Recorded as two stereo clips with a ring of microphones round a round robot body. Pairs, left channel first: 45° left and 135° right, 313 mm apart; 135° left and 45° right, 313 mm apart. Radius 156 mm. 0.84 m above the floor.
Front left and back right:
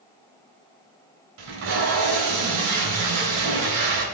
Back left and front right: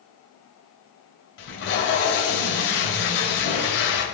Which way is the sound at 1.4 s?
170° right.